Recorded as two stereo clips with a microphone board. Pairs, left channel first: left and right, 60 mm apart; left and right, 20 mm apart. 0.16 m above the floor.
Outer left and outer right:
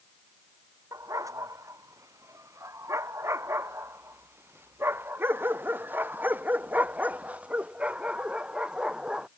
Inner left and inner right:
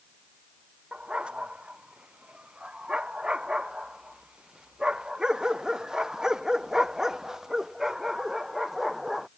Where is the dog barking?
65° right (ahead or behind); by 9.3 s 15° right (ahead or behind).